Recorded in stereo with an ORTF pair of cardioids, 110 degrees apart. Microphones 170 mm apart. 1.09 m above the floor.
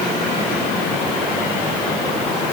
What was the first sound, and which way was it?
Only background noise.